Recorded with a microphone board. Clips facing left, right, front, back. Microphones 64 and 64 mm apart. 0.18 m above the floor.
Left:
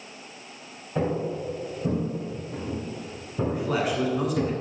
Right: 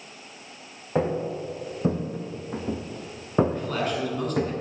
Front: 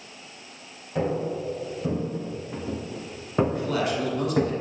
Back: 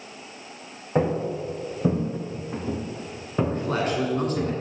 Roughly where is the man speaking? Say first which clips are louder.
Left 2 dB, back 1 dB; behind.